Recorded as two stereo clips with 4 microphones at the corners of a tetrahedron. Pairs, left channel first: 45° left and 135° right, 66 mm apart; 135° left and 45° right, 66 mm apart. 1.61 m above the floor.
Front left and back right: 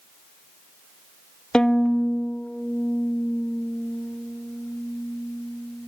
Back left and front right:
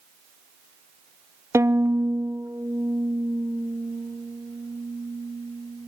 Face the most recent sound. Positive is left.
turn(degrees=-30)